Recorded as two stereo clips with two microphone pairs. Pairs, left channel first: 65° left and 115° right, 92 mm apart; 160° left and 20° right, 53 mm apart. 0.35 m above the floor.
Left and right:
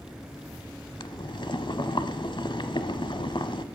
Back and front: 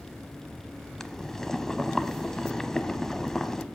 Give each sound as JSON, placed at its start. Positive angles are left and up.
{"t": 1.0, "sound": "boiling", "azimuth_deg": 85, "distance_m": 0.8}